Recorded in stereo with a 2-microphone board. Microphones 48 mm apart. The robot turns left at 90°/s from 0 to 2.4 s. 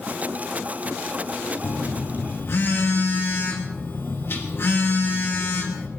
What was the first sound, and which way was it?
A phone buzzing, 125° left.